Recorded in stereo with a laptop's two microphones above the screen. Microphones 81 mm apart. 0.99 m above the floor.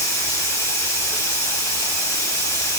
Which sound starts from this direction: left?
Running water, at 0.0 s.